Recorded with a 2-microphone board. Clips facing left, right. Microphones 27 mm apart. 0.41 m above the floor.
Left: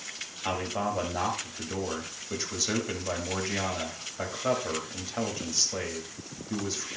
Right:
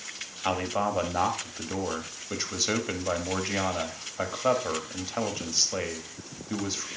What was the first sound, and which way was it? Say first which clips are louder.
A man speaking: right 3 dB; 20° right (ahead or behind).